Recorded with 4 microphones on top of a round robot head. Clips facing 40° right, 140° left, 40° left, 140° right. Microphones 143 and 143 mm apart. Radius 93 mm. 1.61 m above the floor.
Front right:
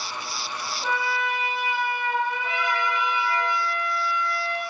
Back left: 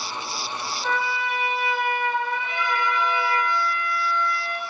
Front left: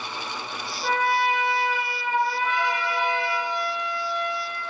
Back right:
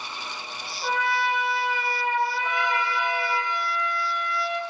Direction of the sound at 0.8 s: 20° right.